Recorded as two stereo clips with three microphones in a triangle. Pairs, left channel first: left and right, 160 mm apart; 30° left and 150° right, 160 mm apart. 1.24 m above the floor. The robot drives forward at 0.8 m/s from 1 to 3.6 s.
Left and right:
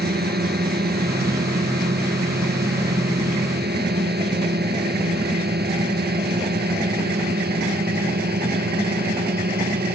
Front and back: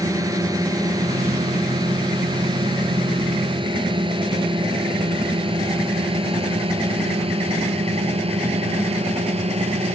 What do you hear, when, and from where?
0.0 s a drone: 80° right; by 9.9 s 100° right